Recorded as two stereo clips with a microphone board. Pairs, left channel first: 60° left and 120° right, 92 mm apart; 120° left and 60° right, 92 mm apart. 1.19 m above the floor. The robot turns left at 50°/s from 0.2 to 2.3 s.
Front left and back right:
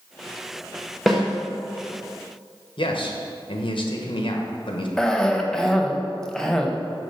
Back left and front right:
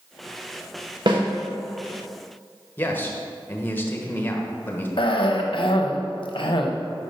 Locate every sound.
1.1 s a snare drum: 30° right, 1.3 m; by 1.2 s 40° right, 1.3 m
2.8 s a man speaking: 55° left, 1.1 m
5.0 s a cough: 145° left, 1.0 m